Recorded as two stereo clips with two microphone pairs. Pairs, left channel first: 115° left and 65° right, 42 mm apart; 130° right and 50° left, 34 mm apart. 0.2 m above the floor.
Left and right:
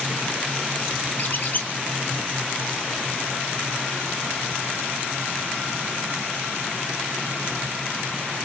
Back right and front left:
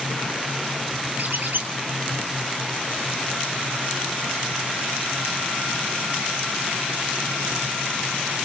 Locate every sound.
1.2 s a squeak: 75° left, 3.5 m